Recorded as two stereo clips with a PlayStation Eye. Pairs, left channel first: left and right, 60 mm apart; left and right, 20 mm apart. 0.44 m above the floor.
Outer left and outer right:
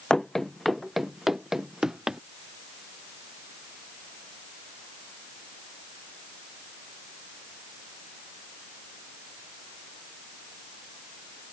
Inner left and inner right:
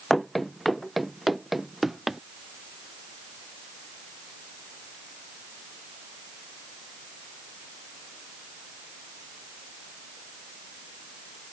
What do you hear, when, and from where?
0.1 s running footsteps: 10° left (ahead or behind); by 2.2 s 10° right (ahead or behind)